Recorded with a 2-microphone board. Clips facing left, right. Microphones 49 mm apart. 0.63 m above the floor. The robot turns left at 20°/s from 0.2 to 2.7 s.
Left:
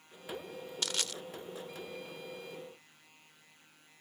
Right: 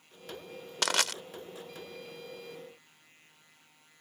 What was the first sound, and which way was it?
Crushing, 80° right.